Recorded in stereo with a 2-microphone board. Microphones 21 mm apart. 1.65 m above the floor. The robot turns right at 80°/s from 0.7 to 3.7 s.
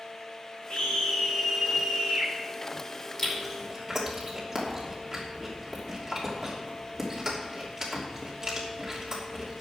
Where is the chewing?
10° left (ahead or behind), 3 m; by 9.6 s 30° right (ahead or behind), 3 m.